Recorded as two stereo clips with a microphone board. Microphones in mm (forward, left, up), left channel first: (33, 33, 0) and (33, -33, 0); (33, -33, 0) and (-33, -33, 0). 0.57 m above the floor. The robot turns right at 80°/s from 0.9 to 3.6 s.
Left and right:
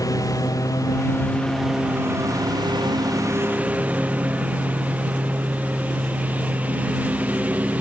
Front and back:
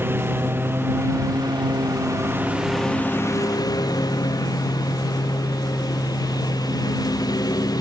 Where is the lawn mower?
125° left; by 7.8 s 20° right.